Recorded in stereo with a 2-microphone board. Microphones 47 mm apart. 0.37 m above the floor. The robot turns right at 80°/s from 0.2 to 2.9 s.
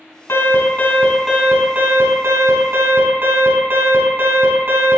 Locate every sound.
0.3 s an alarm: 110° left, 3.5 m; by 5.0 s 40° right, 3.5 m